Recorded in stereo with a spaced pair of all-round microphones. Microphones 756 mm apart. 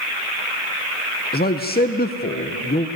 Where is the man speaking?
15° left (ahead or behind), 0.6 m.